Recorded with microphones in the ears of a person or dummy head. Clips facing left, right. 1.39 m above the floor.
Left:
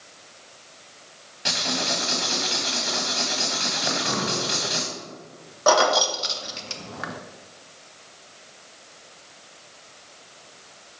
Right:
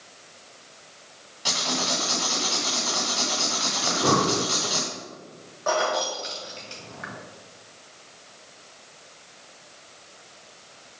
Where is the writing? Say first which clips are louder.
Left 1 dB; 20° left (ahead or behind), 1.4 m.